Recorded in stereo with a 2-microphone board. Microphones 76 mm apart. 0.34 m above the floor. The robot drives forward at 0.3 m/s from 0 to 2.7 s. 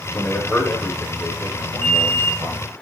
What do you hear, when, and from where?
0.1 s a man speaking: 20° left (ahead or behind), 1.0 m; by 2.7 s 15° left (ahead or behind), 1.5 m
1.8 s an alarm: 25° left (ahead or behind), 2.5 m